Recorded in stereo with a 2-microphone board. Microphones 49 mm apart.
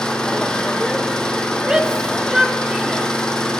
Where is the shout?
15° right (ahead or behind), 1.3 m.